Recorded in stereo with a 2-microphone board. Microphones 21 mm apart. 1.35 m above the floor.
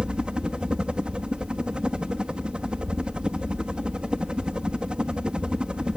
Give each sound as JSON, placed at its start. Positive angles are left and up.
{"t": 0.0, "sound": "a helicopter", "side_deg": -65}